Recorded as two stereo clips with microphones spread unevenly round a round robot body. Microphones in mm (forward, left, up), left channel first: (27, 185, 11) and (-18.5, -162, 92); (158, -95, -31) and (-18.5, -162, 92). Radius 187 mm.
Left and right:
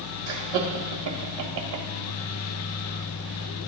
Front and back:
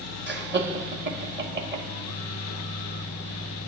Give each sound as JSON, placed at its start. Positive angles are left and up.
{"t": 0.3, "sound": "laughter", "azimuth_deg": -115, "distance_m": 2.5}